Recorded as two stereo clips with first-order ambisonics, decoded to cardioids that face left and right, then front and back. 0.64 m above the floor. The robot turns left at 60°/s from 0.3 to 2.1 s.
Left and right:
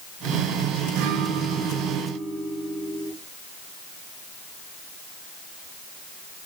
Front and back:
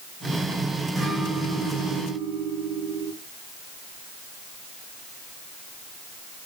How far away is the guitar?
About 4.5 m.